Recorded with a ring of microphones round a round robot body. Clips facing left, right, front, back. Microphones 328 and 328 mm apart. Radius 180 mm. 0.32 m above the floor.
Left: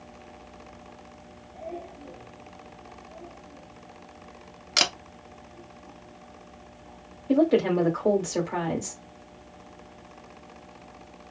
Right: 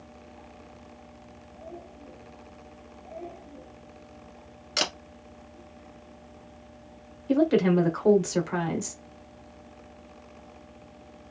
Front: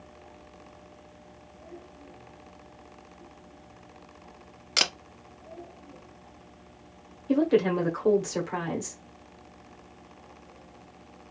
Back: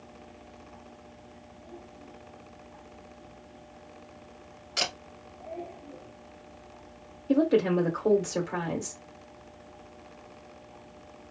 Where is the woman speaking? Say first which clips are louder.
Even, even; 65° right, 1.3 m.